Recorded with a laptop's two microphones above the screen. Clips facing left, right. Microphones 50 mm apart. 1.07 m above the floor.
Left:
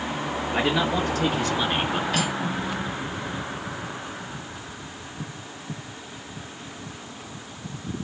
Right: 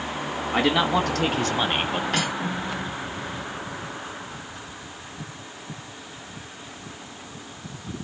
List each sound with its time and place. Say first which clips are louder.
0.5 s a man speaking: right 3 dB; 80° right, 1.0 m; by 2.0 s 20° right (ahead or behind), 0.7 m
2.1 s cutlery clinking: even; 55° right (ahead or behind), 1.1 m